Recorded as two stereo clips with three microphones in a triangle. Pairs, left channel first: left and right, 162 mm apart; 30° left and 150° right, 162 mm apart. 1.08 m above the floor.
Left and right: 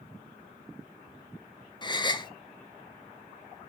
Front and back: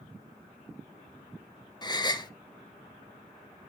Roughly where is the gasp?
Ahead left.